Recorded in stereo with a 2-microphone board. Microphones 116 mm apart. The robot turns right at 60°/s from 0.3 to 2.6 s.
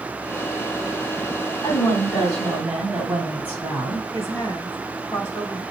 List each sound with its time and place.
1.6 s a woman speaking: 140° left, 2.5 m; by 4.0 s 165° right, 2.5 m
4.1 s a woman speaking: 25° left (ahead or behind), 2.5 m